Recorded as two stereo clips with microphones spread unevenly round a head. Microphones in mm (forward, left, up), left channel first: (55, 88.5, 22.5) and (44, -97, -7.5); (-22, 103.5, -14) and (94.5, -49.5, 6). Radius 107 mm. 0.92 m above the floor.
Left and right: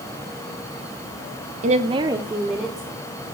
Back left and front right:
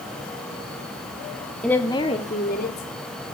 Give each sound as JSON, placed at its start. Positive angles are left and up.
{"t": 1.6, "sound": "a woman speaking", "azimuth_deg": -145, "distance_m": 1.5}